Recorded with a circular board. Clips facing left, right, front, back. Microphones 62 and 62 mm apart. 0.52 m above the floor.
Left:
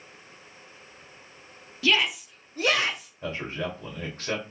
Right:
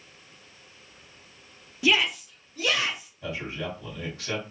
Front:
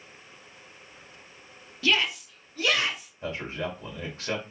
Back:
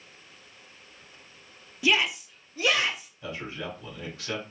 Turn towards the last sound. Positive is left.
turn(degrees=50)